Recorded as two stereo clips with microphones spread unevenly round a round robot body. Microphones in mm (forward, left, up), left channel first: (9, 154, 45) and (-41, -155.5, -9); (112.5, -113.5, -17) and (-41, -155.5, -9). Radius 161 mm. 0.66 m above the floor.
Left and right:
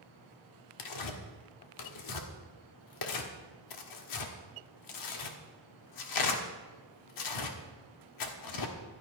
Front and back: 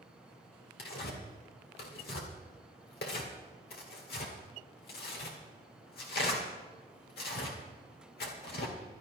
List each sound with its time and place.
0.8 s tearing paper: 50° left, 1.6 m